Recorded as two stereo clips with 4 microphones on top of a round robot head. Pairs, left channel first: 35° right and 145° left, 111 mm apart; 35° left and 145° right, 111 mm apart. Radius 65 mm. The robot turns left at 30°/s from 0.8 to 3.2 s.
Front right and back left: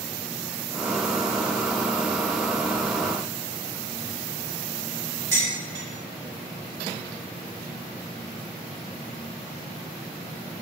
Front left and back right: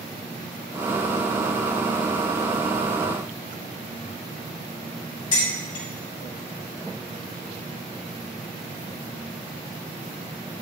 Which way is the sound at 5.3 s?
85° left.